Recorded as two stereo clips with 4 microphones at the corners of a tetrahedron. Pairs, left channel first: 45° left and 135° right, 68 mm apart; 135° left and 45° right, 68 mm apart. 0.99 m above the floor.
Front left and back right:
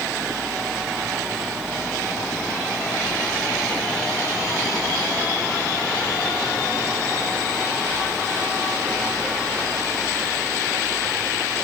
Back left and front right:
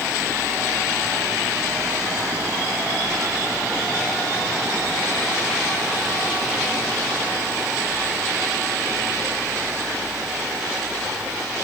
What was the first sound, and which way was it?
Only background noise.